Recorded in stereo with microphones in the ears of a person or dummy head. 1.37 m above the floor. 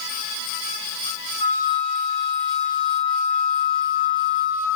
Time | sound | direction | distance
1.4 | a flute | 45° left (ahead or behind) | 0.7 m